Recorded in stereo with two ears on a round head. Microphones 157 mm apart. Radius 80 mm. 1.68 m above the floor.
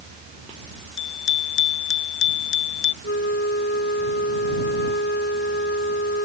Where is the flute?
60° left (ahead or behind).